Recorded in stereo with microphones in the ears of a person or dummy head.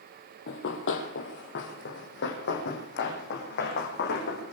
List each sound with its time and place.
0.5 s running footsteps: 60° left (ahead or behind), 3 m; by 4.5 s 55° left (ahead or behind), 6.5 m